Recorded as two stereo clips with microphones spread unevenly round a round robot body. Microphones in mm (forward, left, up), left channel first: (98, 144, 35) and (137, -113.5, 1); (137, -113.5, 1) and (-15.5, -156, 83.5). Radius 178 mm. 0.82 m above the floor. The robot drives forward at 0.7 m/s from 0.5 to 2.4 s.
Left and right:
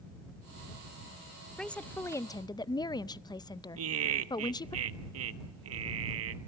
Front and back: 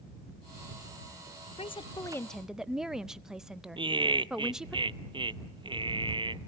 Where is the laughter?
90° right, 1.1 m.